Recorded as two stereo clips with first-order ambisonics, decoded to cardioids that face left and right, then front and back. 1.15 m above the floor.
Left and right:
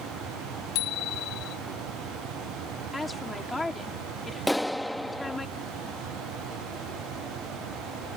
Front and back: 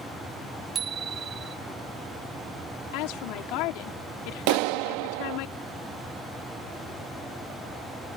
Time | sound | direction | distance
0.8 | a bicycle bell | 115° left | ?
2.9 | a woman speaking | 10° left | ?
4.5 | a clap | 175° left | ?